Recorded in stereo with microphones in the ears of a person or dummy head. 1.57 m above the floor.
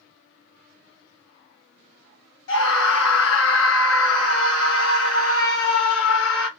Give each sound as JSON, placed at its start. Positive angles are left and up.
{"t": 2.5, "sound": "a scream", "side_deg": 85, "distance_m": 1.8}